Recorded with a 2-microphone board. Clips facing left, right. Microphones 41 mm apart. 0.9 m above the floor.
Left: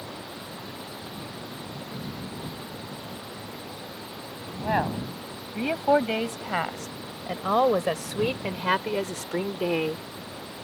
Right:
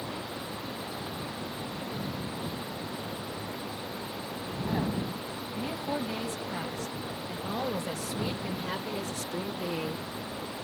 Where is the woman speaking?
80° left; by 10.1 s 60° left (ahead or behind).